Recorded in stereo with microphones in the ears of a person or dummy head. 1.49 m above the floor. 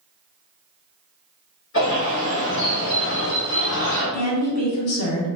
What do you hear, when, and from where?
1.7 s a bird: 65° left (ahead or behind), 1.5 m
4.1 s a woman speaking: 45° left (ahead or behind), 0.9 m